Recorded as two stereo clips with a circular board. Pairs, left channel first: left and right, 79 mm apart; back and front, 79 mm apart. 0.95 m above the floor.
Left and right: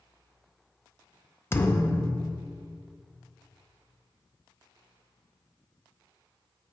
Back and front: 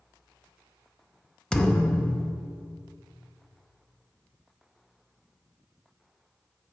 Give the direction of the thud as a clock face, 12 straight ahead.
8 o'clock.